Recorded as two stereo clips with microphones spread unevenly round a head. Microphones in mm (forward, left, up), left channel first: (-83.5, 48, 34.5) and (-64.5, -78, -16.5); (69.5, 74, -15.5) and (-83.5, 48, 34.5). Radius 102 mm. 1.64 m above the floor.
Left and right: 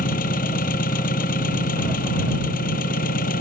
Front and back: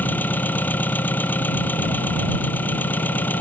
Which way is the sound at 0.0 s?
90° left.